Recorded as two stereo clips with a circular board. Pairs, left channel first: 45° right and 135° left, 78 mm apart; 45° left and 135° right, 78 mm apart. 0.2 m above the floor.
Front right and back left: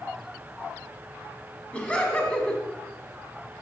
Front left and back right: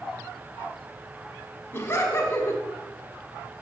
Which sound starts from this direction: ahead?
Laughter, at 1.7 s.